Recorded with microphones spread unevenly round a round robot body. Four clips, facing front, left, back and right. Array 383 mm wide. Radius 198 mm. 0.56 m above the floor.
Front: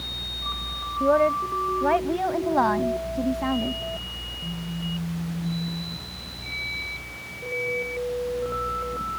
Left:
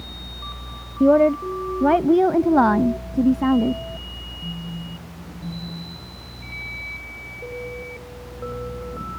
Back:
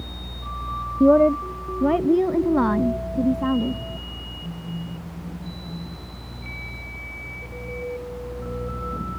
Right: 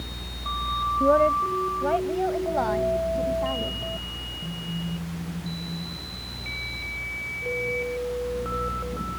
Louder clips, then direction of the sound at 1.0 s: Left 5 dB, back 5 dB; 145° left.